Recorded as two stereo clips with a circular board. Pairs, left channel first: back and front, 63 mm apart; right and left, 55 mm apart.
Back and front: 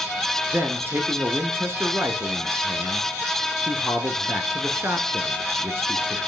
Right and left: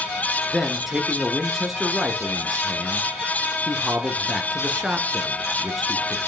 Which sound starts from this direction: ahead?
A man speaking, at 0.5 s.